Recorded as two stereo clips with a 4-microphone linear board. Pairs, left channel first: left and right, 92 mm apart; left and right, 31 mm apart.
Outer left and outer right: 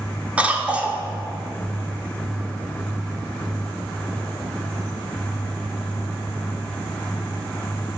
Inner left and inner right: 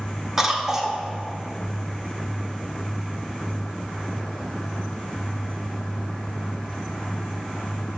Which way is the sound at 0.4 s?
15° right (ahead or behind).